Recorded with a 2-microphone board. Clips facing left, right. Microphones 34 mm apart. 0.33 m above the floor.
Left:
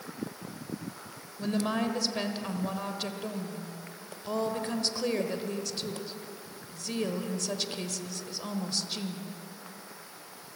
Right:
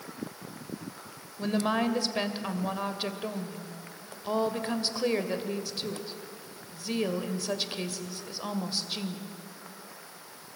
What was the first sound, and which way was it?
A woman speaking, 15° right (ahead or behind).